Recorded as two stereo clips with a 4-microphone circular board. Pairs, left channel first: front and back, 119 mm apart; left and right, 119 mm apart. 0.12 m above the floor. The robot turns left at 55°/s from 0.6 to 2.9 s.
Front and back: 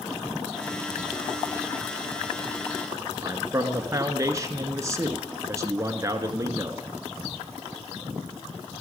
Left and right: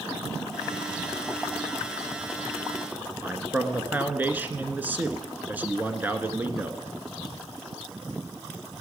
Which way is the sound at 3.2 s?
150° right.